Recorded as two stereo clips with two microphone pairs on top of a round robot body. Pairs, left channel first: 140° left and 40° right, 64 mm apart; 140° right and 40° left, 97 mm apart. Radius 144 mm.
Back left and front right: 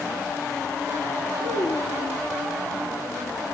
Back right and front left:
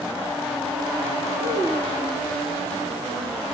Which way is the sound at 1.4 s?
140° left.